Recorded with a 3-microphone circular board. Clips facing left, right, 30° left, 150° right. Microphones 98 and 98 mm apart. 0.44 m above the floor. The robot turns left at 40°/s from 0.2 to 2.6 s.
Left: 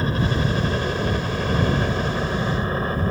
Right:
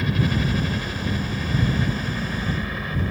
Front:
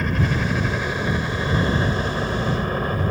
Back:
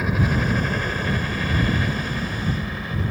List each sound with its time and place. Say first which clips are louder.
0.0 s a helicopter: left 1 dB, even; 130° left; by 3.1 s 55° left